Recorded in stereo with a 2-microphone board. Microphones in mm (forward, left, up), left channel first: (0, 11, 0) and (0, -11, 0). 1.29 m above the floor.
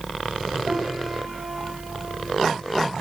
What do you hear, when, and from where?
0.7 s a piano: 40° right (ahead or behind), 6.5 m